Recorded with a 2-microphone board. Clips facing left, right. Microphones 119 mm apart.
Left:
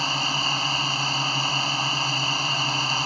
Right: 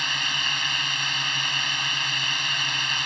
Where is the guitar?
I don't hear a guitar.